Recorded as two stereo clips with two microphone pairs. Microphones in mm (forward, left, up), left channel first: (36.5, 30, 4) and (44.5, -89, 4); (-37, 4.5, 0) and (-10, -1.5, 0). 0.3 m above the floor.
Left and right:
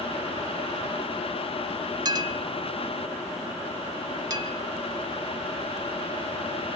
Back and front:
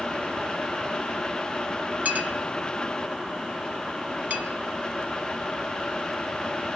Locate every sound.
2.0 s a clink: 35° right, 1.2 m